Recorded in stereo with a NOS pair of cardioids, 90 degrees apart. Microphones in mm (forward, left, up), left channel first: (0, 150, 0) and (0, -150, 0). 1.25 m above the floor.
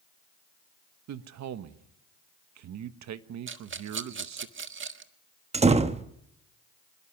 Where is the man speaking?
65° right, 1.4 m.